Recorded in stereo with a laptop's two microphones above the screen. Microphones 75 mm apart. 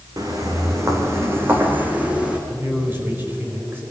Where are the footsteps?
50° right (ahead or behind), 3.5 m; by 2.4 s 10° right (ahead or behind), 3 m.